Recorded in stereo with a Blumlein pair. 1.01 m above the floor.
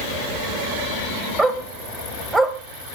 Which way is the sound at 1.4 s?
10° right.